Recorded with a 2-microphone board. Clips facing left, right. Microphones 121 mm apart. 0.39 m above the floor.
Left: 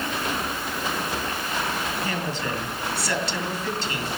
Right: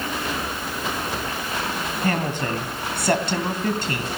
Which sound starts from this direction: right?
A woman speaking, at 2.0 s.